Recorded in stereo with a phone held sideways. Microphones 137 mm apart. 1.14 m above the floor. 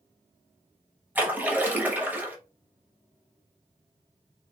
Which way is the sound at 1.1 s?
10° right (ahead or behind).